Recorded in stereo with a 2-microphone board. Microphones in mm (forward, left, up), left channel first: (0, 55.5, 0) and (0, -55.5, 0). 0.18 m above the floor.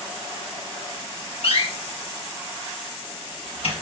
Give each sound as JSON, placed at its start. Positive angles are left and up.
{"t": 1.4, "sound": "a door slam", "side_deg": 60, "distance_m": 3.0}